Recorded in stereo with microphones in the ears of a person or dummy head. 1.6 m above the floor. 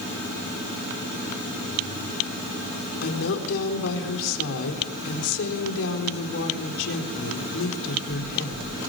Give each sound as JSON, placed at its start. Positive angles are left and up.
{"t": 3.0, "sound": "a woman speaking", "side_deg": 70, "distance_m": 4.0}